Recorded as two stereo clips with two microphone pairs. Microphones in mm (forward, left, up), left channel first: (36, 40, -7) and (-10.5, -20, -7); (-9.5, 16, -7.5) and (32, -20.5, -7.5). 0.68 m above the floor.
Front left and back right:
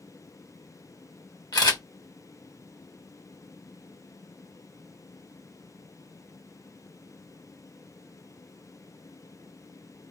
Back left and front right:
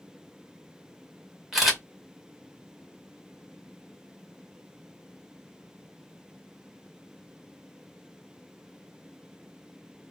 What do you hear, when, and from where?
1.5 s a camera shutter: 40° left, 1.2 m